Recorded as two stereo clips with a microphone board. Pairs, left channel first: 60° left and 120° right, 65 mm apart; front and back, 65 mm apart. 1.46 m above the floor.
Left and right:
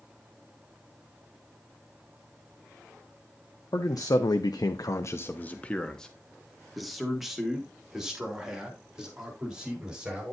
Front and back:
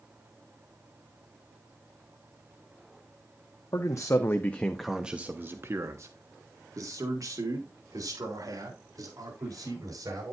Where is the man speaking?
30° left, 1.0 m; by 10.3 s 165° left, 4.5 m.